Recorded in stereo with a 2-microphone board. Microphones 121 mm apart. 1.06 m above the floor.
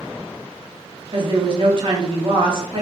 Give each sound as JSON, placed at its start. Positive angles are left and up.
{"t": 1.1, "sound": "a woman speaking", "side_deg": -45, "distance_m": 0.7}